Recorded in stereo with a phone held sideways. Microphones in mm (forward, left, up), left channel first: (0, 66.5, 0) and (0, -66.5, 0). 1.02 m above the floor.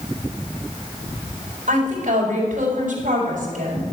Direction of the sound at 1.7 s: 80° right.